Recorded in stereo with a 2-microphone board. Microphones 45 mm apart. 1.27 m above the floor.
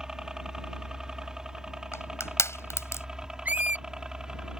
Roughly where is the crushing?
Left.